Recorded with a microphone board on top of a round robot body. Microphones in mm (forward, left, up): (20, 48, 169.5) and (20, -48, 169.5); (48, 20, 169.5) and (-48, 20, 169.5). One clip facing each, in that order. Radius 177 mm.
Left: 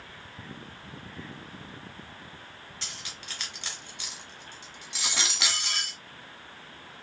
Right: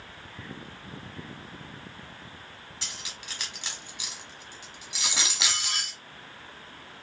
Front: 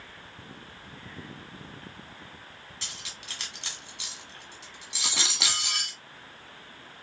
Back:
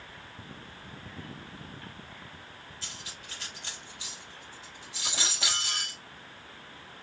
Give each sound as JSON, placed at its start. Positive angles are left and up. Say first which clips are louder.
{"t": 2.8, "sound": "cutlery clinking", "louder": "right 1 dB, front 1 dB", "azimuth_deg": -10, "distance_m": 1.3}